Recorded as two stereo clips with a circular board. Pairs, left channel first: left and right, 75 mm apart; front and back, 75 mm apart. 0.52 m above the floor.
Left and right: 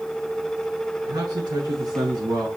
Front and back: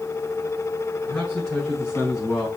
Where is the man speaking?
85° right, 5.5 m.